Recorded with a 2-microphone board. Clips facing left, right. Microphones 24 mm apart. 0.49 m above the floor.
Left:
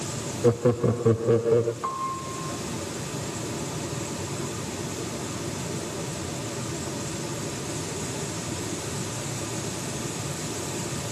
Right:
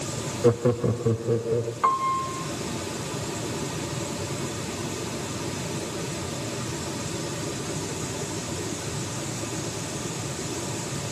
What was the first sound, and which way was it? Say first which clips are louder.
Laughter: even; 10° right (ahead or behind).